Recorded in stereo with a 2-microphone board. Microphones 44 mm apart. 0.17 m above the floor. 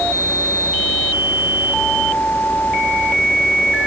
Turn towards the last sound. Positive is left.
No sound to turn to.